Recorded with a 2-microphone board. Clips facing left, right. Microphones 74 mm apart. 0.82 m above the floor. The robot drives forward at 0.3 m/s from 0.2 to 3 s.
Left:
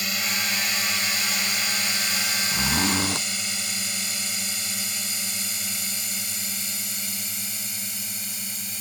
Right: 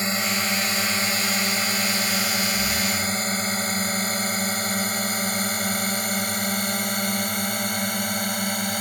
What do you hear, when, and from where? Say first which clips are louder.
0.0 s a drone: right 4 dB; 30° right (ahead or behind); by 8.8 s 65° right (ahead or behind)
2.5 s a zipper: left 1 dB; 85° left